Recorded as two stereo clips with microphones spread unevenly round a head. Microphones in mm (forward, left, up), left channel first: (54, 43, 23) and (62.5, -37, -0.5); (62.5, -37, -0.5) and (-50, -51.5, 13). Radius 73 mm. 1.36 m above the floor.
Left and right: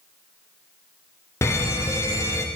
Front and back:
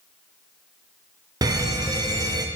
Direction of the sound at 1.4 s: 155° left.